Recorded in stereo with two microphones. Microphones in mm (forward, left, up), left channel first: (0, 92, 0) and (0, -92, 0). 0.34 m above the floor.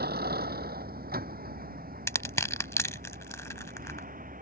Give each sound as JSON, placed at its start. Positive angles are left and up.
{"t": 0.0, "sound": "a vehicle", "side_deg": -60}
{"t": 2.1, "sound": "crushing", "side_deg": 15}